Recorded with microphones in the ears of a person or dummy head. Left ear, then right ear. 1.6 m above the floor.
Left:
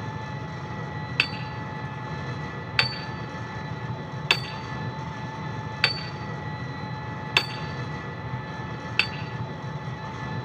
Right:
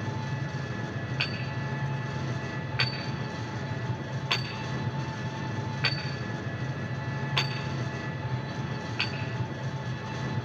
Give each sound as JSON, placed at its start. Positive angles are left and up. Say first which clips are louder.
{"t": 0.0, "sound": "an engine running", "louder": "left 1 dB", "side_deg": 35, "distance_m": 8.0}
{"t": 1.2, "sound": "hammering", "louder": "left 7 dB", "side_deg": 55, "distance_m": 1.8}